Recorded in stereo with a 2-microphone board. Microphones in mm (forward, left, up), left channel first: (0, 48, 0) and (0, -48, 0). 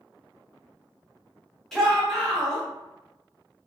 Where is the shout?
5° left (ahead or behind), 1.0 m.